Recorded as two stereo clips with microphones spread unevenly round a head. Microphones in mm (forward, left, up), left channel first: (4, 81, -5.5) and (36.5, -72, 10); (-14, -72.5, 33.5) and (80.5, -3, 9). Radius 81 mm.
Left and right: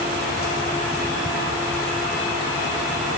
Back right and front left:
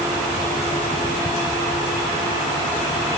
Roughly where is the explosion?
I don't hear an explosion.